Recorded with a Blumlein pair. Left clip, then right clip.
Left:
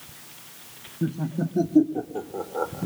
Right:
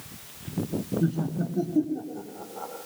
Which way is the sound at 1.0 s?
Straight ahead.